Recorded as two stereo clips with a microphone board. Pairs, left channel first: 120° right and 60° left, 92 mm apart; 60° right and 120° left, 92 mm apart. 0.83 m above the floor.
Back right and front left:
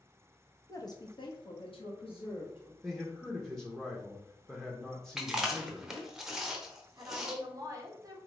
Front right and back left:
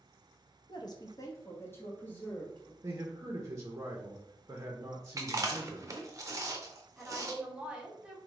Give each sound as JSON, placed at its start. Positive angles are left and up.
{"t": 0.7, "sound": "a woman speaking", "azimuth_deg": -75, "distance_m": 0.6}
{"t": 2.8, "sound": "a man speaking", "azimuth_deg": 155, "distance_m": 0.6}
{"t": 5.2, "sound": "chewing", "azimuth_deg": 140, "distance_m": 0.6}
{"t": 7.0, "sound": "a woman speaking", "azimuth_deg": 45, "distance_m": 0.8}